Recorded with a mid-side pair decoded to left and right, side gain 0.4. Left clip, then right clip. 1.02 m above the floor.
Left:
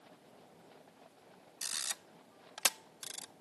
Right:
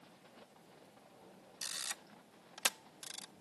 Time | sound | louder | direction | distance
1.6 | a camera shutter | left 3 dB | 40° left | ?